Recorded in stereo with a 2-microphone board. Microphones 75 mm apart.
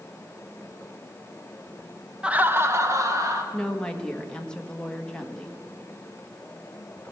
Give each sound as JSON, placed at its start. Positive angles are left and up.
{"t": 2.2, "sound": "laughter", "side_deg": -15, "distance_m": 0.8}
{"t": 3.5, "sound": "a woman speaking", "side_deg": 10, "distance_m": 1.5}